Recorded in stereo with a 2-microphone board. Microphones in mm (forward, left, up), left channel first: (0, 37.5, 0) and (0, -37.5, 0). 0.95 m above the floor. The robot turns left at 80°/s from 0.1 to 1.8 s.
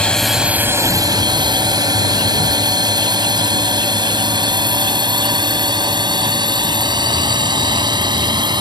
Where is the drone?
15° left (ahead or behind); by 8.6 s 75° right (ahead or behind).